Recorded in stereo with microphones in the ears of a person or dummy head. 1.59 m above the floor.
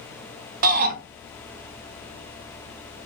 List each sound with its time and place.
0.6 s a shout: 45° right (ahead or behind), 0.7 m